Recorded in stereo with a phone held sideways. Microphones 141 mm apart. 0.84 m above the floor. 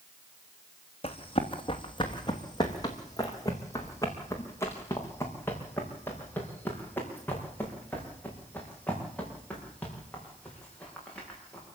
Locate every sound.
1.0 s running footsteps: 45° left (ahead or behind), 2.5 m; by 11.7 s 10° left (ahead or behind), 11 m